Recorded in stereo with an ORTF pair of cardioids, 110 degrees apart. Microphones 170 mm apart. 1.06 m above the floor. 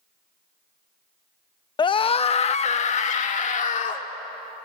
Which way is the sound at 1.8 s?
25° left.